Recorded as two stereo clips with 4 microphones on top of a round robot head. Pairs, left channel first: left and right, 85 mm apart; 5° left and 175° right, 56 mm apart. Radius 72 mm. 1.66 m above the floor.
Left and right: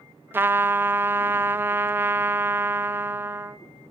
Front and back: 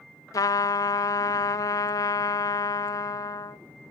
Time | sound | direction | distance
0.3 | a trumpet | 25° right | 0.6 m